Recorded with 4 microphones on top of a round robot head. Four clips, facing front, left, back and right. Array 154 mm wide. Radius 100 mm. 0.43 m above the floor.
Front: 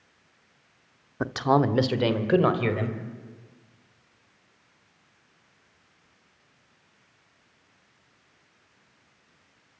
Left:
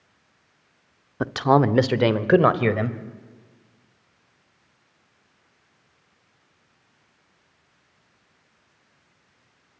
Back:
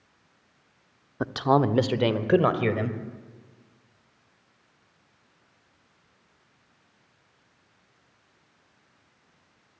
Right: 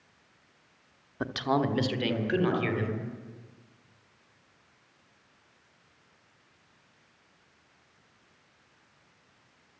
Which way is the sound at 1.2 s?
90° left.